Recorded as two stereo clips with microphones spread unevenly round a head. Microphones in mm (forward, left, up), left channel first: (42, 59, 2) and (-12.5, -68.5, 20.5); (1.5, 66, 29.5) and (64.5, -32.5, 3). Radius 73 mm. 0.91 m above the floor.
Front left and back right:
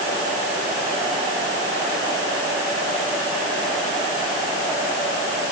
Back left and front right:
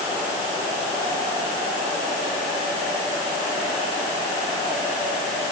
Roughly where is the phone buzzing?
No phone buzzing in this recording.